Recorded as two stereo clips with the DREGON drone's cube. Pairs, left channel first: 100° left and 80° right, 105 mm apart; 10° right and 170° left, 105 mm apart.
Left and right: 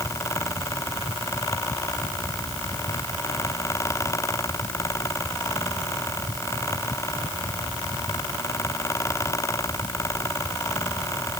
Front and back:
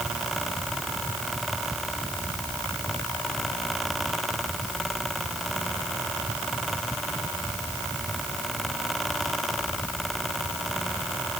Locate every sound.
Only background noise.